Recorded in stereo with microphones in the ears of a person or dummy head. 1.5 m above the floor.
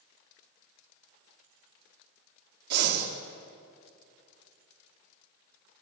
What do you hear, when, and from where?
2.7 s breathing: 60° right (ahead or behind), 3.5 m